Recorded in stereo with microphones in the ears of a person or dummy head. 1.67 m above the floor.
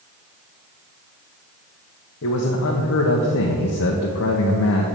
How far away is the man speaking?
About 1.0 m.